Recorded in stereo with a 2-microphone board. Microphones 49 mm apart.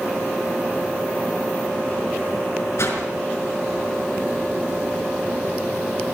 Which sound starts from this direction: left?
A whoosh, at 2.8 s.